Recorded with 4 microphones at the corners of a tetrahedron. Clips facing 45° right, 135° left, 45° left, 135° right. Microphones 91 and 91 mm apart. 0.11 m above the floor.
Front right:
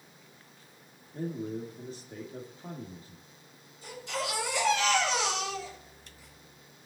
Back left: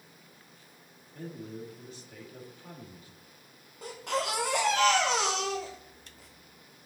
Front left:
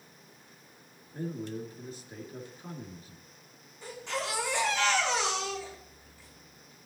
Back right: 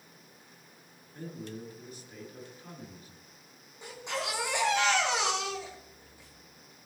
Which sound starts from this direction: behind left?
A baby crying, at 3.8 s.